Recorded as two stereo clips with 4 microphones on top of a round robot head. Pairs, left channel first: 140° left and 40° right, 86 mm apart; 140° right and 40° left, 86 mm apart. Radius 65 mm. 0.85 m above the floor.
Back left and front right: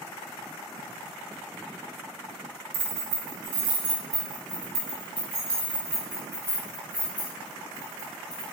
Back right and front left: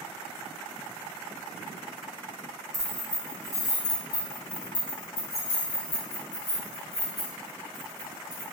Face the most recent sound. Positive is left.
turn(degrees=-140)